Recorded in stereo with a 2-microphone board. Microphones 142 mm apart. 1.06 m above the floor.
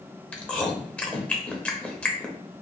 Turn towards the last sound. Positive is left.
turn(degrees=10)  # may be behind; listen again after turning